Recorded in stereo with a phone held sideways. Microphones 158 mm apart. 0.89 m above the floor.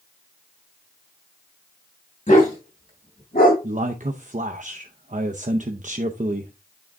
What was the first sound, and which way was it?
A dog barking, 55° left (ahead or behind).